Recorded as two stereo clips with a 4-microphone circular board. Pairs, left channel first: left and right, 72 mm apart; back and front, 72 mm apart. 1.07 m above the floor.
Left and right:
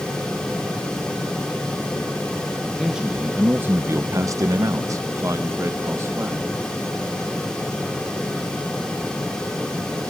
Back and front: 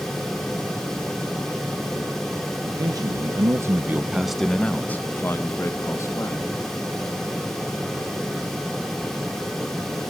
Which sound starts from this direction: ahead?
A man speaking, at 2.7 s.